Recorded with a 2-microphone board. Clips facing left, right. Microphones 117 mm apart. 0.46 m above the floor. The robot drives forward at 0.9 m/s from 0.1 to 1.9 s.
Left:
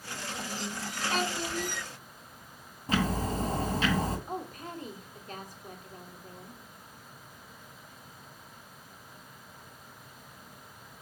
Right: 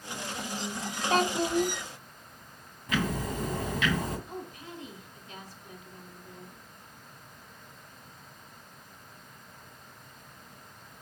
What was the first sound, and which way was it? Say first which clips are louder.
A child speaking: right 7 dB; 40° right (ahead or behind).